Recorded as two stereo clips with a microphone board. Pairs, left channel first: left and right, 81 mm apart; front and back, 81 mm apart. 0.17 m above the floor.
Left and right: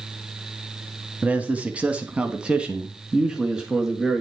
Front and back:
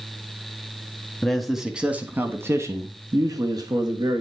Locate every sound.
1.2 s a man speaking: 65° right, 1.3 m; by 4.2 s 170° right, 2.5 m